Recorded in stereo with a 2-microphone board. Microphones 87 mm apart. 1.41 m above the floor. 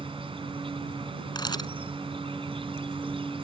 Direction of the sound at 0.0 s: 85° right.